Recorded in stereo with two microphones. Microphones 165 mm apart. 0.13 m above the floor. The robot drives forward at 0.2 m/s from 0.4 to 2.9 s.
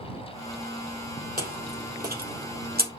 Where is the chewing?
60° right (ahead or behind), 2.0 m; by 2.9 s 65° right (ahead or behind), 1.9 m.